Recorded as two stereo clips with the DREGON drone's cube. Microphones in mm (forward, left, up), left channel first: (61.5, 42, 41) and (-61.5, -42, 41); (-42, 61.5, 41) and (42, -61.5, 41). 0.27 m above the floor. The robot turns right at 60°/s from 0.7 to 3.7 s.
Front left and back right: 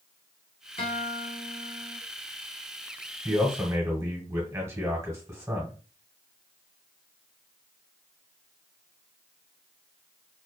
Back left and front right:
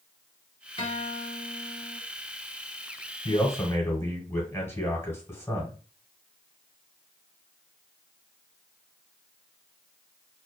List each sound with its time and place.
0.8 s a guitar: 80° left, 0.9 m; by 2.0 s 155° left, 0.9 m
3.2 s a man speaking: 145° left, 1.2 m; by 5.7 s 175° left, 1.2 m